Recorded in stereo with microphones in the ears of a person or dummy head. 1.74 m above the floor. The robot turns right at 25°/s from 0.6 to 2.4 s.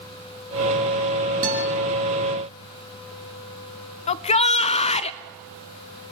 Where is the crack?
I don't hear a crack.